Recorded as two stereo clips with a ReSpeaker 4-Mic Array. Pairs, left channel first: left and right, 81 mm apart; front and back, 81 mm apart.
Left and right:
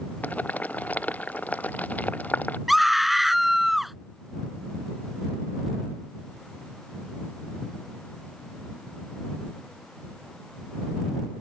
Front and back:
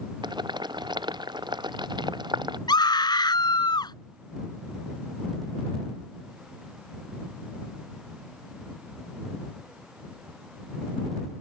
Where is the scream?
Straight ahead.